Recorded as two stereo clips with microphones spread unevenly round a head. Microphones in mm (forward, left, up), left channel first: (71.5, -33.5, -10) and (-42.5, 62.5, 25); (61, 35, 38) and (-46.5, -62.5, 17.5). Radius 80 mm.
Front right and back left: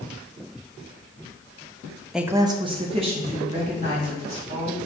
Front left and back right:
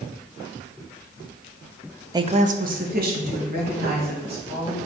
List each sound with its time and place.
2.1 s a woman speaking: 110° right, 0.5 m; by 4.8 s 165° right, 4 m